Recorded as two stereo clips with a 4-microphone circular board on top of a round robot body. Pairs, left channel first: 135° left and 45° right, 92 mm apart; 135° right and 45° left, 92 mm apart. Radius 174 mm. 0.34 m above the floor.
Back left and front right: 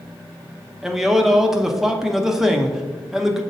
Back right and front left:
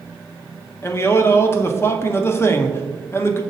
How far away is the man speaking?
About 1.0 m.